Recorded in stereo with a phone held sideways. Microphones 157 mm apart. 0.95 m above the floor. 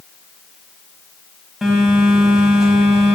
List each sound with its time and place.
1.6 s a phone buzzing: 5° right (ahead or behind), 1.1 m